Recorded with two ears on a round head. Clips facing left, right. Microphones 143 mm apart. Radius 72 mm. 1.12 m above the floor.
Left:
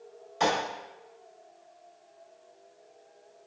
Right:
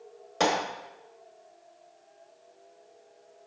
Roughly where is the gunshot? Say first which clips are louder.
Right 1 dB; right.